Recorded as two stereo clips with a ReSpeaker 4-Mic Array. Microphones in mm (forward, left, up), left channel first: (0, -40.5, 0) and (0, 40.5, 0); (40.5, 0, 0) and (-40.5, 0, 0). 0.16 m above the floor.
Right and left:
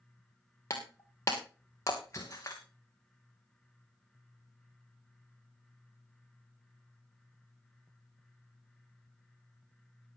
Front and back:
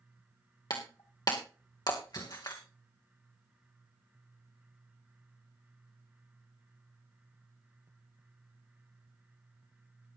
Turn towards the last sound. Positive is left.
turn(degrees=-40)